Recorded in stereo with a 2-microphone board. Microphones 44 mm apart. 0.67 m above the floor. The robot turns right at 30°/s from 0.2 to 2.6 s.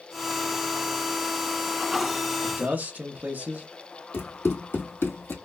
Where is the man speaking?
40° right (ahead or behind), 0.9 m.